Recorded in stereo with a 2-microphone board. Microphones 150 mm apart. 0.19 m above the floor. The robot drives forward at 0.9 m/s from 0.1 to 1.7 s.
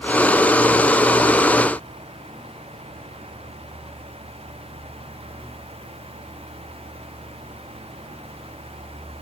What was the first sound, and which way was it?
Only background noise.